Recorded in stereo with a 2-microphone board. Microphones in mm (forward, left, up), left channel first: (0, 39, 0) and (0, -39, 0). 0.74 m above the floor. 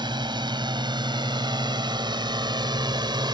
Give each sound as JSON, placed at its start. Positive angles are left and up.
{"t": 0.0, "sound": "a drone", "side_deg": -75}